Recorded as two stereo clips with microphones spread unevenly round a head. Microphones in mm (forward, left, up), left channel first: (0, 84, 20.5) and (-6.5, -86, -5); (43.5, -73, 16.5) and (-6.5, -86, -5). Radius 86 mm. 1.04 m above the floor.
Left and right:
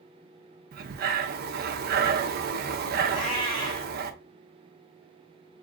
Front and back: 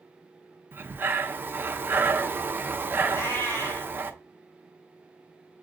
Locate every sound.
0.7 s breathing: 100° right, 0.5 m
3.1 s a cat meowing: 30° left, 1.7 m